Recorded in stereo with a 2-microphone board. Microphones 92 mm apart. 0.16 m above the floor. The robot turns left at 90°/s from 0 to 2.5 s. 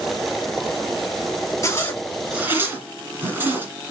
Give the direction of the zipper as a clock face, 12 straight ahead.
11 o'clock.